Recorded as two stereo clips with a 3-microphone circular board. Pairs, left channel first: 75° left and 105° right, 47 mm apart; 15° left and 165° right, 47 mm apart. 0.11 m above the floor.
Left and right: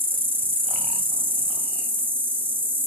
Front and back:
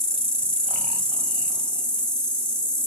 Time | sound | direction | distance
0.0 | an insect | 55° right | 1.7 m